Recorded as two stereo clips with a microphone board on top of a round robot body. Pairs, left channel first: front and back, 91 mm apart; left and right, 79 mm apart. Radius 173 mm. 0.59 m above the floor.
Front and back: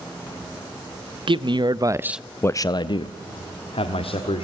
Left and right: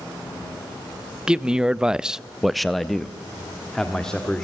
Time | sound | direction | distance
1.3 | a man speaking | 170° right | 1.0 m